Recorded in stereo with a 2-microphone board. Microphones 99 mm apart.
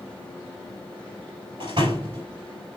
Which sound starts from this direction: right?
A door slam, at 1.6 s.